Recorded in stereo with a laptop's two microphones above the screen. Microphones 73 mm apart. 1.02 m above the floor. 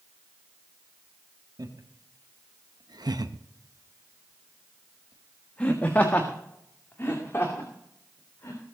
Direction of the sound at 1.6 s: 70° right (ahead or behind).